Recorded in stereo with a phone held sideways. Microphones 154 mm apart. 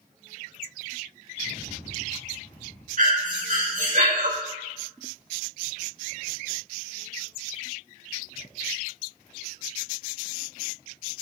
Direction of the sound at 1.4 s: 55° left (ahead or behind).